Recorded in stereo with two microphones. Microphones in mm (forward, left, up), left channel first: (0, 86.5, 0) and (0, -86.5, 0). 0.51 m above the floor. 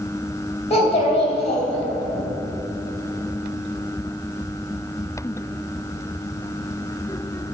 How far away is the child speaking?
About 2.5 m.